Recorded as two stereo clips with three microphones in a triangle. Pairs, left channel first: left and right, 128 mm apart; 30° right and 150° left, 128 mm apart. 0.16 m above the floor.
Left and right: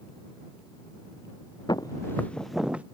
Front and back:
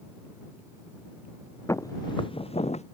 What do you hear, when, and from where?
1.7 s footsteps: 35° left; by 2.8 s 10° right